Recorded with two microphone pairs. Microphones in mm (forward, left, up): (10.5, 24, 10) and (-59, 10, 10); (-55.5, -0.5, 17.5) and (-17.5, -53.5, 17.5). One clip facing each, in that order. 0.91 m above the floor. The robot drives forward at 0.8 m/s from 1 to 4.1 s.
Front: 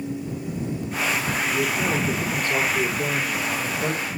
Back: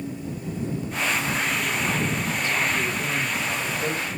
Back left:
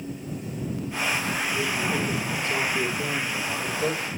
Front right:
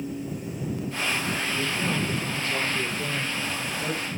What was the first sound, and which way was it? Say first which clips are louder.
A man speaking: front 2 dB, back left 2 dB; 50° left.